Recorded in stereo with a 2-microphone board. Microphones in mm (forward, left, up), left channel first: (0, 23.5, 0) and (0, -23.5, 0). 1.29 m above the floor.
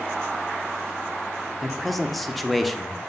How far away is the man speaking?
About 0.9 m.